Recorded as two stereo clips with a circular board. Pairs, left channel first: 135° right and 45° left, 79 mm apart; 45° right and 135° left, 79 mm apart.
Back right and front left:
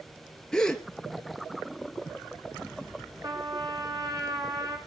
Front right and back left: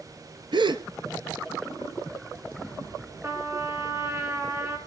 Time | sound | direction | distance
0.5 | a gasp | 145° left | 1.1 m
3.2 | a trumpet | 75° left | 2.5 m